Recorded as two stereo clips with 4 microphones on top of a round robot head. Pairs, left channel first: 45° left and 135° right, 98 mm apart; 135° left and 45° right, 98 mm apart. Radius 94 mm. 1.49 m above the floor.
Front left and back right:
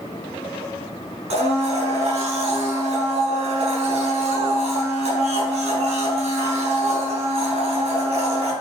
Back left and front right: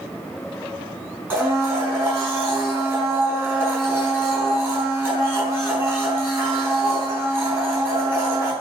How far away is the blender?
About 5.5 m.